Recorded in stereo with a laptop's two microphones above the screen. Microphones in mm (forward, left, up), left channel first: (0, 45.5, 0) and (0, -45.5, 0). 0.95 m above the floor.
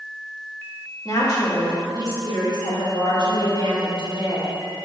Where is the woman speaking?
40° left (ahead or behind), 2.5 m; by 4.8 s 60° left (ahead or behind), 4 m.